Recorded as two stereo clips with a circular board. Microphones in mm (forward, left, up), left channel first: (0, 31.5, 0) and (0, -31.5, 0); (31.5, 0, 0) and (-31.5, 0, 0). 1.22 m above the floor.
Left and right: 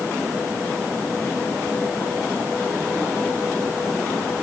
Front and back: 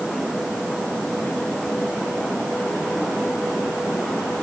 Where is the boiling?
I don't hear boiling.